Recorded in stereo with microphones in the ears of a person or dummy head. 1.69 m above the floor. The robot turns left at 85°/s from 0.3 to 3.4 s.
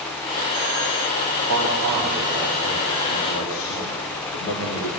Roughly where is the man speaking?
Right.